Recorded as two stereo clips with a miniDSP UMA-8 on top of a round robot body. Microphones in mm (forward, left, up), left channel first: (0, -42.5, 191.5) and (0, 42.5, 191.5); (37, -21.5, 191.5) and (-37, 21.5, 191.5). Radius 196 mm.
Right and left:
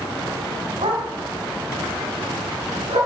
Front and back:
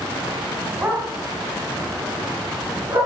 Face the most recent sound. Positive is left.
turn(degrees=100)